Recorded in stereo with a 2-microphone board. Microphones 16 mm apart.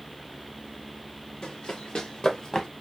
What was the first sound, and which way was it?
Running footsteps, 70° left (ahead or behind).